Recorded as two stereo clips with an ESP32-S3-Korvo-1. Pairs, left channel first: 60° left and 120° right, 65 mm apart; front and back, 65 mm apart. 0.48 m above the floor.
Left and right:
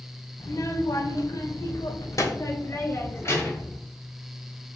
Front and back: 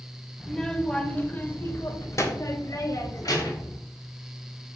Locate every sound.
0.4 s a child speaking: 90° left, 1.1 m; by 3.8 s 10° left, 1.9 m